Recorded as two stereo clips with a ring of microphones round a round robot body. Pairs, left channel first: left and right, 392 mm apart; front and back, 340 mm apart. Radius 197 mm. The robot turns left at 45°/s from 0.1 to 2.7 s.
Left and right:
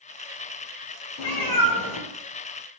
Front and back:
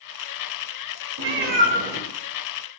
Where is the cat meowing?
135° left, 0.5 m; by 2.8 s 65° left, 0.5 m.